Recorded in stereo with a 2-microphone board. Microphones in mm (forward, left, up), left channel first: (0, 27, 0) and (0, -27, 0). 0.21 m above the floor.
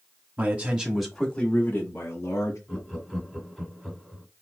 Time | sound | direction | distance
0.4 | a man speaking | 30° right (ahead or behind) | 1.2 m
2.7 | laughter | centre (ahead or behind) | 1.5 m